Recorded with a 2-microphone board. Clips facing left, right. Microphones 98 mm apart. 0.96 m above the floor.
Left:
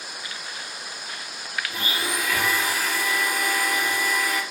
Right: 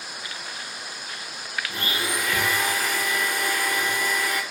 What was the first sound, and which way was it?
A blender, 5° left (ahead or behind).